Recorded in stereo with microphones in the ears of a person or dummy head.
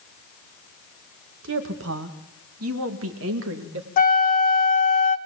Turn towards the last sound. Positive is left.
turn(degrees=45)  # may be behind; listen again after turning